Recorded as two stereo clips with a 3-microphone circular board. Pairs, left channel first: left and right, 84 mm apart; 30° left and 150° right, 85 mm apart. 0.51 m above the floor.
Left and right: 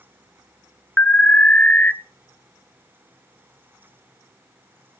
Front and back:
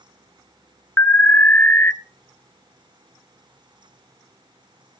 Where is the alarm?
50° left, 0.5 m.